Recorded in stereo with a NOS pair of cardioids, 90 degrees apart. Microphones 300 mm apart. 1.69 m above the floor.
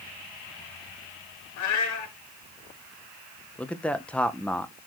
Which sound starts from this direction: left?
A cat meowing, at 1.6 s.